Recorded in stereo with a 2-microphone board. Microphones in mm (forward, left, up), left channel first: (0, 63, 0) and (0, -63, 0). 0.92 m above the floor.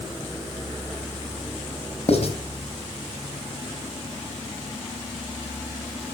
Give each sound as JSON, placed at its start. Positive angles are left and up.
{"t": 2.1, "sound": "writing", "side_deg": 55, "distance_m": 4.0}